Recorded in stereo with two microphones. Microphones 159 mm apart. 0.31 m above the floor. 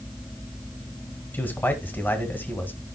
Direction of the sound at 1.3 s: 10° left (ahead or behind).